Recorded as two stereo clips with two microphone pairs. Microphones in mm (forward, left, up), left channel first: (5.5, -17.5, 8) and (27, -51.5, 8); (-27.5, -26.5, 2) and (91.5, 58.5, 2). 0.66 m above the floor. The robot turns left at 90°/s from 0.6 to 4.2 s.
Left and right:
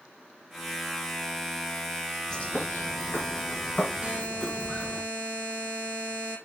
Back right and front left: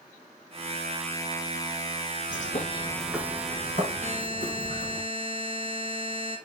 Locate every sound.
2.3 s a bird: 160° right, 4.5 m; by 5.0 s 30° left, 4.5 m
4.0 s a buzzer: straight ahead, 6.5 m; by 6.4 s 15° right, 6.5 m